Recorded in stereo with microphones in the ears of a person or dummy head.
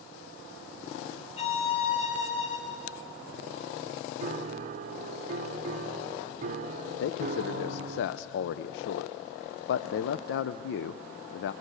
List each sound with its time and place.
1.4 s a violin: 35° left (ahead or behind), 3.5 m
4.2 s a piano: 45° right (ahead or behind), 0.7 m
7.0 s a man speaking: 65° left (ahead or behind), 0.6 m